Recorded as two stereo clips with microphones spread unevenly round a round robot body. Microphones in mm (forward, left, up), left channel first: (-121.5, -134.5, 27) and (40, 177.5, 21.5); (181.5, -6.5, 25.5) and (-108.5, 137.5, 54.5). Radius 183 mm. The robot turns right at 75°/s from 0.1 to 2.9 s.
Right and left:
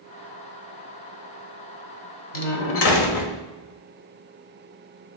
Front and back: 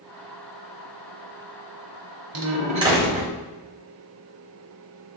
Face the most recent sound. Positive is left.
turn(degrees=-125)